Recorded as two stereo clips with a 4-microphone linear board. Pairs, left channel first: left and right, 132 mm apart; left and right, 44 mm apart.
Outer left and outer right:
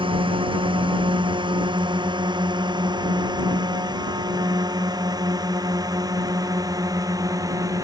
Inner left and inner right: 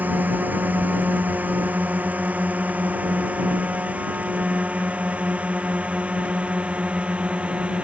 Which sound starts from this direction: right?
A drone, at 0.0 s.